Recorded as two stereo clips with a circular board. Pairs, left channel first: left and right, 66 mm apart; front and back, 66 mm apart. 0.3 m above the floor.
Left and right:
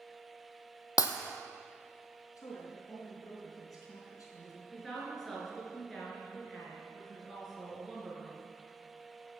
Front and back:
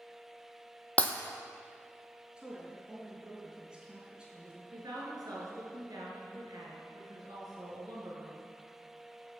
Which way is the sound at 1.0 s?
70° left.